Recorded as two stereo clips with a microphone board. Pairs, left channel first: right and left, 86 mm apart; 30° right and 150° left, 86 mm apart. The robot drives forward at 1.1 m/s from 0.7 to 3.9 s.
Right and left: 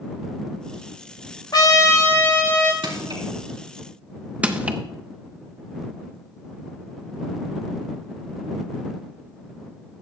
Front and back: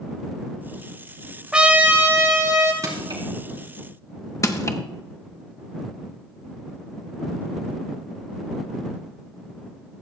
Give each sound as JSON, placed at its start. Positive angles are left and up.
{"t": 1.5, "sound": "a trumpet", "azimuth_deg": -130, "distance_m": 1.0}
{"t": 2.8, "sound": "crushing", "azimuth_deg": 105, "distance_m": 3.5}
{"t": 4.4, "sound": "crushing", "azimuth_deg": 15, "distance_m": 0.9}